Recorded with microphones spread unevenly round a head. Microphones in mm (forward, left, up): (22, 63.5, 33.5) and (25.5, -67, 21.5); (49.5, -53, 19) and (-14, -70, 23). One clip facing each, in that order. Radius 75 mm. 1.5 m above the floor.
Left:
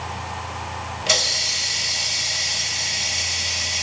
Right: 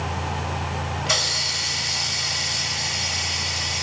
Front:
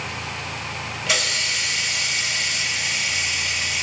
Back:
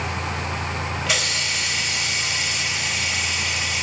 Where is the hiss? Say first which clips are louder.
Left 1 dB, front 3 dB; 105° left, 1.5 m.